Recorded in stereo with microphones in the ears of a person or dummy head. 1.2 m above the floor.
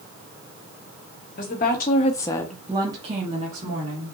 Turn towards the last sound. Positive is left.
turn(degrees=-50)  # may be behind; listen again after turning